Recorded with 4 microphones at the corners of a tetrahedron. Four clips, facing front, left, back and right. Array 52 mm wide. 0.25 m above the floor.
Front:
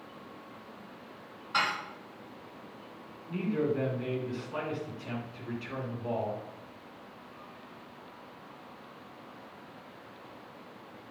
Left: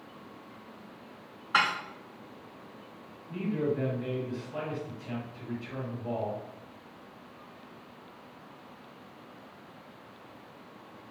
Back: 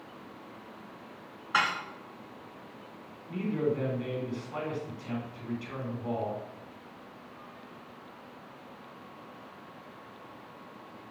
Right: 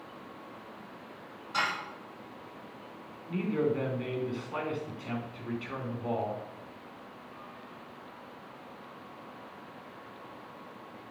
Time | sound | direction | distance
1.5 | dishes clattering | 120° left | 1.9 m
3.3 | a man speaking | 95° right | 3 m